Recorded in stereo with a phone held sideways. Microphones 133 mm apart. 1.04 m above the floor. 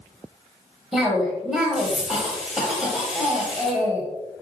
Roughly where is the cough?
Centre.